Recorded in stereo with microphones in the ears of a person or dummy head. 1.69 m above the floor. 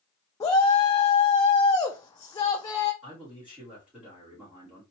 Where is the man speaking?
5° right (ahead or behind), 2.5 m.